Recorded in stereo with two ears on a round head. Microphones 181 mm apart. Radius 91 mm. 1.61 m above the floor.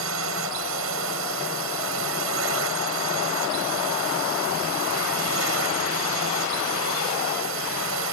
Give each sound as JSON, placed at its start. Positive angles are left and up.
{"t": 0.0, "sound": "a drone", "side_deg": -70}